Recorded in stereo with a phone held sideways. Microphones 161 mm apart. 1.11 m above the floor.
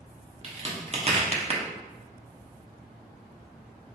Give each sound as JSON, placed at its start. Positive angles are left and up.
{"t": 0.4, "sound": "a crack", "side_deg": -40, "distance_m": 0.8}